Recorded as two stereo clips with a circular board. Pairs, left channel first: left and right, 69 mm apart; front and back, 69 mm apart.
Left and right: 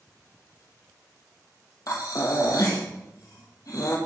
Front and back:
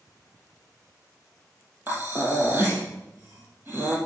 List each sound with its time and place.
1.9 s breathing: 120° left, 1.8 m